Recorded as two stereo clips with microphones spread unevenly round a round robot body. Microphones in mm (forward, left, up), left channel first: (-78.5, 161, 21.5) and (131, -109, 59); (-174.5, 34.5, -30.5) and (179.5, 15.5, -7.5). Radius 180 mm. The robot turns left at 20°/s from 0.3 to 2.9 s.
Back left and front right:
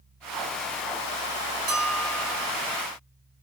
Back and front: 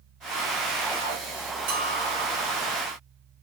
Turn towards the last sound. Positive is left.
turn(degrees=-65)